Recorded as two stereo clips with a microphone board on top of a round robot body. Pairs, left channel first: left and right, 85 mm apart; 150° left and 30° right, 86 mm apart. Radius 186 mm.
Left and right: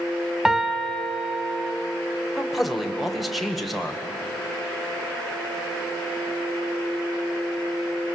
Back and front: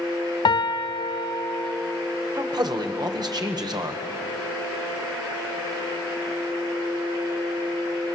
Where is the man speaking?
Straight ahead, 1.9 m.